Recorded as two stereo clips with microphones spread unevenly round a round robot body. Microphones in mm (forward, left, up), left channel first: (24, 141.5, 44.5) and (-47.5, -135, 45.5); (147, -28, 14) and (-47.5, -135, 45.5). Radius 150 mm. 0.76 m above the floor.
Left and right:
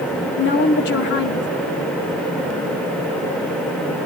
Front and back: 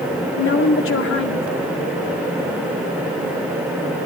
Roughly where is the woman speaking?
Ahead left.